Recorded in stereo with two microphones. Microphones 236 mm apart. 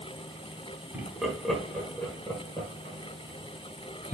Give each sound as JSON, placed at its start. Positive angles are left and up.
{"t": 0.9, "sound": "laughter", "side_deg": -5, "distance_m": 1.7}